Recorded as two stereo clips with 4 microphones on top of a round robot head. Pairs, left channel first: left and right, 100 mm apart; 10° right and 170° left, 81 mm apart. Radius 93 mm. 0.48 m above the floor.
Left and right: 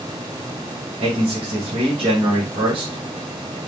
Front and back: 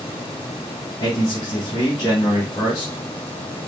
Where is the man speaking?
60° right, 4.5 m.